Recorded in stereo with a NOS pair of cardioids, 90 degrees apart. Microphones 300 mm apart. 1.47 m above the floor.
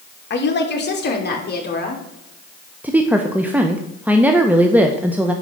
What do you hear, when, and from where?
0.3 s a woman speaking: 40° left, 3 m; by 2.0 s 35° left, 5.5 m
2.8 s a woman speaking: 5° right, 1.2 m